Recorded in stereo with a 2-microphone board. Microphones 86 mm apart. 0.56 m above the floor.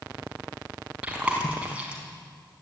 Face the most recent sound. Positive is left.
turn(degrees=-15)  # may be behind; listen again after turning